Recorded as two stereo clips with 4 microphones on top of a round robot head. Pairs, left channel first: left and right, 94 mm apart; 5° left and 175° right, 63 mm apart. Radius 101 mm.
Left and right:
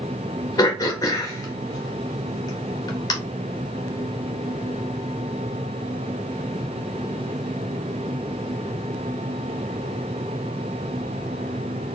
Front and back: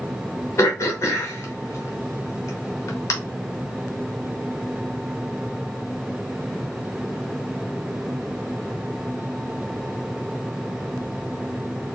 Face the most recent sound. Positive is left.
turn(degrees=40)